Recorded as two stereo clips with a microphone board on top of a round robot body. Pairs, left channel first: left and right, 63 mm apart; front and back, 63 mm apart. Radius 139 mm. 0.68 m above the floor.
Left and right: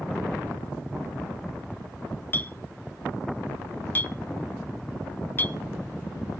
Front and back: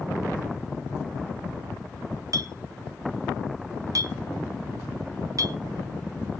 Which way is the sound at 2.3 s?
150° left.